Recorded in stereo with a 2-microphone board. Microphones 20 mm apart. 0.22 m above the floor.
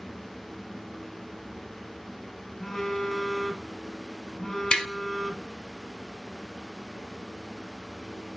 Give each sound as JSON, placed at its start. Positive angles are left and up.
{"t": 2.6, "sound": "a phone buzzing", "side_deg": 30, "distance_m": 1.3}
{"t": 4.7, "sound": "tapping", "side_deg": 50, "distance_m": 0.9}